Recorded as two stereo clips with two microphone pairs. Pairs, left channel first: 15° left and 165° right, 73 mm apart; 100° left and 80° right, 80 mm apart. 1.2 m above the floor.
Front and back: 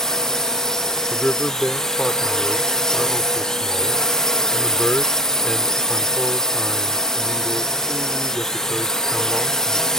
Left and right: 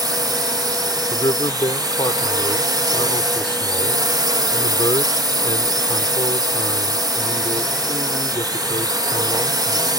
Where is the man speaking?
95° left.